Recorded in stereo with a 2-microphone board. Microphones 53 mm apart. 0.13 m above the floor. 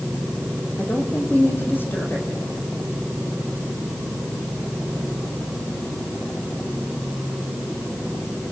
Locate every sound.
0.8 s a woman speaking: 40° left (ahead or behind), 5.5 m